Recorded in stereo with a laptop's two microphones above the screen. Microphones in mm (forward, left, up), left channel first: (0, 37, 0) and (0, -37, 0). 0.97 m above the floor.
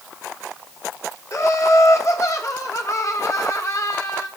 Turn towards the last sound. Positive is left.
turn(degrees=45)  # may be behind; listen again after turning